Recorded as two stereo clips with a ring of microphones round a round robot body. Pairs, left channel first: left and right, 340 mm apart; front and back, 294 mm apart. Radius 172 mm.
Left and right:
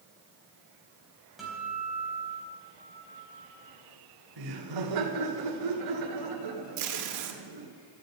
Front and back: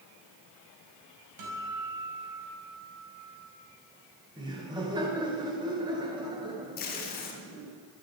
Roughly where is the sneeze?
No sneeze in this recording.